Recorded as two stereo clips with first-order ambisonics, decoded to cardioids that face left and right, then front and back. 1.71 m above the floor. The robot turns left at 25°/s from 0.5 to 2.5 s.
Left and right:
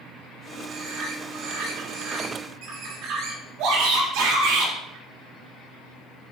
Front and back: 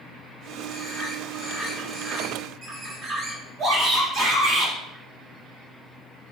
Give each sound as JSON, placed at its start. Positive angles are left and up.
{"t": 0.7, "sound": "a bird", "azimuth_deg": -75, "distance_m": 4.0}
{"t": 3.6, "sound": "a shout", "azimuth_deg": -125, "distance_m": 4.5}